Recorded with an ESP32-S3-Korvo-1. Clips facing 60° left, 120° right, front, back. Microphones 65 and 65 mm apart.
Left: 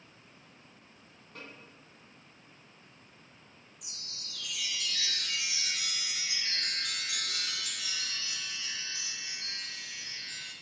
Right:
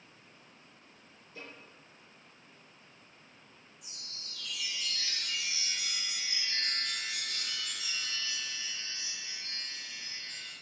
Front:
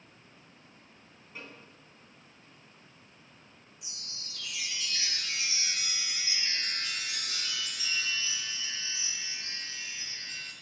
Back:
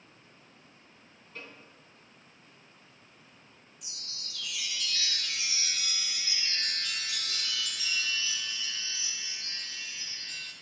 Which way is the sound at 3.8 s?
65° left.